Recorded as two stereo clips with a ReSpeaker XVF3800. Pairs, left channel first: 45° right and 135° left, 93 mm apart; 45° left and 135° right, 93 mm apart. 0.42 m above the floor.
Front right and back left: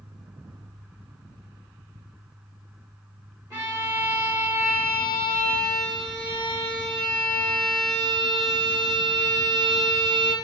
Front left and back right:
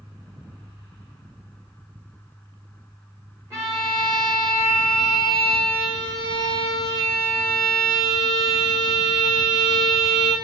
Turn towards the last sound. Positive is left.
turn(degrees=175)